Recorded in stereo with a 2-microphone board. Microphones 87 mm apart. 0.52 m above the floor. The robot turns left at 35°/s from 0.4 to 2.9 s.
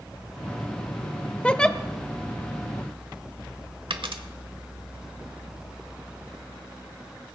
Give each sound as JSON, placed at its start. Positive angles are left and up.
{"t": 1.4, "sound": "a giggle", "side_deg": 15, "distance_m": 0.6}
{"t": 3.9, "sound": "a dropped coin", "side_deg": -75, "distance_m": 1.0}